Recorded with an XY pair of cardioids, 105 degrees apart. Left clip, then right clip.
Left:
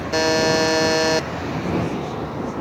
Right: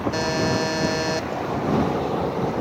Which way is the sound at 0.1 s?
45° left.